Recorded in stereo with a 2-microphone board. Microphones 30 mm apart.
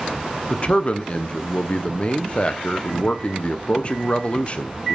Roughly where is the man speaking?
Left.